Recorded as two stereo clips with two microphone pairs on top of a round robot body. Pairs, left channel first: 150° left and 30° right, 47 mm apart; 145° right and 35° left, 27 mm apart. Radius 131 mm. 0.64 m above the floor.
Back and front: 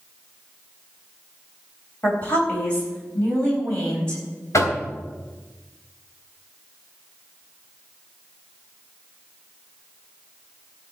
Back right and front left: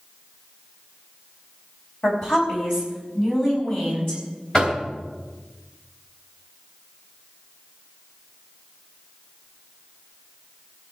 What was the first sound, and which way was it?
A woman speaking, 150° right.